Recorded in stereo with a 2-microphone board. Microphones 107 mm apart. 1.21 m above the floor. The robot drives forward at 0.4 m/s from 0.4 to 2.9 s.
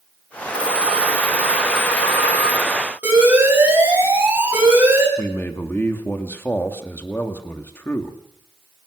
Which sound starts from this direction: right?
A phone ringing, at 0.5 s.